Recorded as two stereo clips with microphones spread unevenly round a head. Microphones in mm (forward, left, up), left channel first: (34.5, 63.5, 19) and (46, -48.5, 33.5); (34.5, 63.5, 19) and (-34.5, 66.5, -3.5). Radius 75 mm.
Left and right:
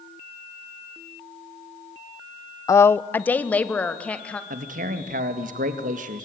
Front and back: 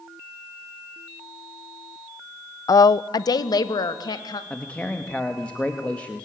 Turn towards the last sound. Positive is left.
turn(degrees=-85)